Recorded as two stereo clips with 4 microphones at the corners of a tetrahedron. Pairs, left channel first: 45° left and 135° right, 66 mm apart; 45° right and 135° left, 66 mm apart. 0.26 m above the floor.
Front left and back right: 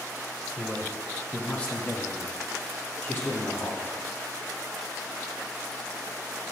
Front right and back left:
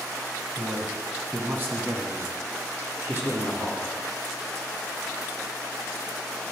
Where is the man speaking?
170° left, 1.1 m; by 3.9 s 90° left, 3.5 m.